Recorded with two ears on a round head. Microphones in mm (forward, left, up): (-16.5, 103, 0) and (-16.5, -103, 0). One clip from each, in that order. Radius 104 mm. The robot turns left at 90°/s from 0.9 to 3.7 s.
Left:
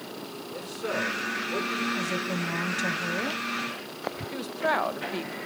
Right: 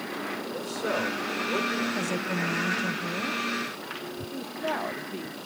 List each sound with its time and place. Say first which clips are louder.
0.5 s a man speaking: even; 5° right, 7 m; by 1.8 s 85° right, 7 m
1.9 s a woman speaking: even; 150° right, 1.4 m; by 3.4 s 75° left, 1.4 m
4.3 s a woman speaking: left 5 dB; 60° left (ahead or behind), 1.4 m